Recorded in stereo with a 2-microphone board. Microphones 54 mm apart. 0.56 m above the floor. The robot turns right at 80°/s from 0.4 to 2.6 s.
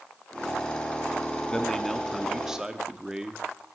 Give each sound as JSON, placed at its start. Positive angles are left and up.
{"t": 1.5, "sound": "a man speaking", "side_deg": 15, "distance_m": 0.8}